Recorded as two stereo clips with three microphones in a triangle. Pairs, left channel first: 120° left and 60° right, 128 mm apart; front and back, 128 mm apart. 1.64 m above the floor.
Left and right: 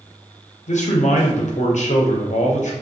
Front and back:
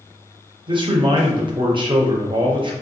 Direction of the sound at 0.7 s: 135° left.